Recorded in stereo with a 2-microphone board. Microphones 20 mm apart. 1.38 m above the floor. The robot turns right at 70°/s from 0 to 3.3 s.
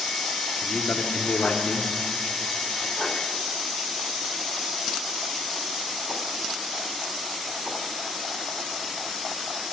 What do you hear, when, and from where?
0.6 s a man speaking: 45° left, 2.5 m; by 1.9 s 140° left, 2.5 m